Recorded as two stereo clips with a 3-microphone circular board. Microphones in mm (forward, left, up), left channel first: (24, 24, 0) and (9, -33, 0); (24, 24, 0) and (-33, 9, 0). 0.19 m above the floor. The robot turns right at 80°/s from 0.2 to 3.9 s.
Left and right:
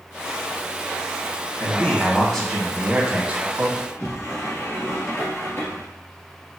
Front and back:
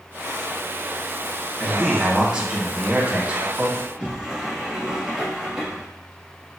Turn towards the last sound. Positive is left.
turn(degrees=120)